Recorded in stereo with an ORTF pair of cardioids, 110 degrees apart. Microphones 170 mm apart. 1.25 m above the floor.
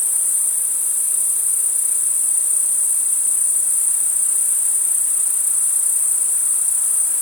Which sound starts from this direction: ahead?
An insect, at 0.0 s.